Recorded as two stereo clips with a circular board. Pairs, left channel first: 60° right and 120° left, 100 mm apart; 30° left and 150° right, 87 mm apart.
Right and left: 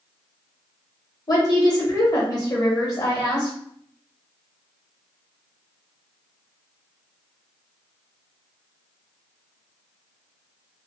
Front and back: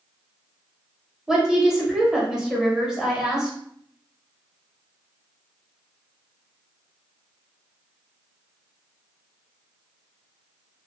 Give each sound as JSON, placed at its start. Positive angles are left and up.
{"t": 1.3, "sound": "a woman speaking", "azimuth_deg": -70, "distance_m": 1.1}